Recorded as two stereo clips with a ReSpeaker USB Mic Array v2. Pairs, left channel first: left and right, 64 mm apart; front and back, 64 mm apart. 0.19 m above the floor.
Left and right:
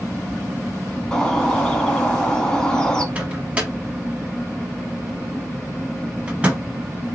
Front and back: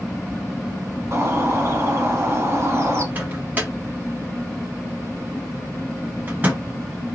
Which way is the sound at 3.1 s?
145° right.